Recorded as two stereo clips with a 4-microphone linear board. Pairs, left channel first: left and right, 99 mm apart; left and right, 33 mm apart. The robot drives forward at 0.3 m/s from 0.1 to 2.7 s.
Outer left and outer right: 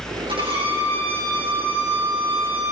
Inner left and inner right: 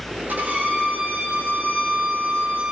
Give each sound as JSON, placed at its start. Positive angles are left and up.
{"t": 0.3, "sound": "a violin", "side_deg": -65, "distance_m": 8.0}